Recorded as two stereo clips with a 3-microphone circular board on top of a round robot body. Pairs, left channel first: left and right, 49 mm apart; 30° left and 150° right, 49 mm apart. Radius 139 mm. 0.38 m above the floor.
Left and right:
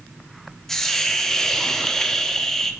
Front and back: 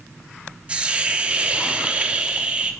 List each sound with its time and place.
0.7 s a hiss: 165° left, 1.1 m